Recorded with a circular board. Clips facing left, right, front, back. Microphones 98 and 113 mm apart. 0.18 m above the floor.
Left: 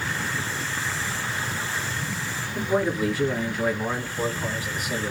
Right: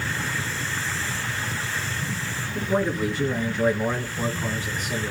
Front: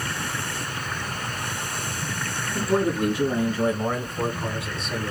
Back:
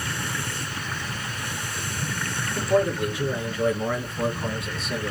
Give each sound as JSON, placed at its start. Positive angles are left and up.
{"t": 2.5, "sound": "a man speaking", "azimuth_deg": 0, "distance_m": 2.5}